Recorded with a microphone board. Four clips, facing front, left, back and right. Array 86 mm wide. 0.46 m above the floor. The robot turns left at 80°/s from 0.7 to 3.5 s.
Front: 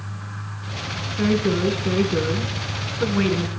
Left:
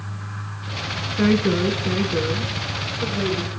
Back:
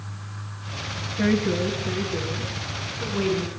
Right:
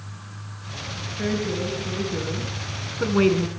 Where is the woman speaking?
85° left, 5 m; by 3.5 s 100° right, 5 m.